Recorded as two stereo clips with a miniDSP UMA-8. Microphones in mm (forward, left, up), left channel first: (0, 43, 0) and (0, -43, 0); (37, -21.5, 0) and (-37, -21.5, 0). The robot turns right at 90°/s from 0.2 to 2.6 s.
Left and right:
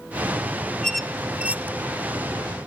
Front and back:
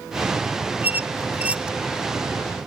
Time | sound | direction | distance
0.8 | a squeak | 165° left | 1.0 m